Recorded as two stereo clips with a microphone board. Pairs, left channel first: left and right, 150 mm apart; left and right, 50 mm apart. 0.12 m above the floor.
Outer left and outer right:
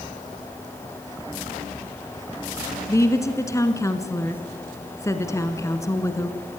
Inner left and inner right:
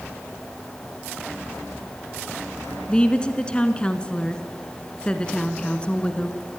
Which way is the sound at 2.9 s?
20° left (ahead or behind).